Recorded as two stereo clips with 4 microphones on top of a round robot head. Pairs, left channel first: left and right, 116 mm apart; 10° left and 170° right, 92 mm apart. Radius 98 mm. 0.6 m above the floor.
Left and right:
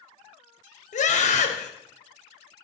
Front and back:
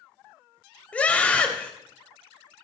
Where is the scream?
85° left, 3 m.